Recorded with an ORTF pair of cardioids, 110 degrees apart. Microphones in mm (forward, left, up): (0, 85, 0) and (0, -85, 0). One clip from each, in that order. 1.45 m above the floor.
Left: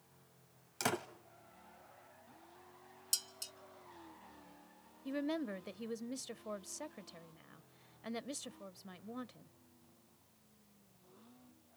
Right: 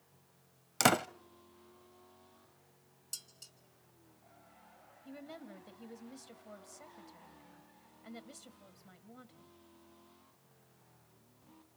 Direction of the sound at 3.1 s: 60° left.